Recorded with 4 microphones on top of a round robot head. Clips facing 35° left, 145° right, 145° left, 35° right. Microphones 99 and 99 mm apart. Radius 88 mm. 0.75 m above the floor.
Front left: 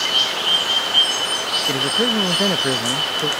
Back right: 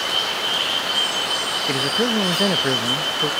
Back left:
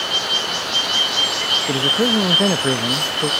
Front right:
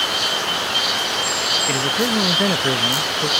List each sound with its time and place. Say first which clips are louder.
1.7 s a man speaking: even, back left 3 dB; 115° left